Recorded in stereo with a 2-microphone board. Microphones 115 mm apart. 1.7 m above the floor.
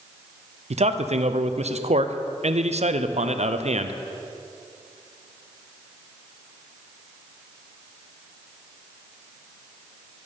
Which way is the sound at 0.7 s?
70° right (ahead or behind).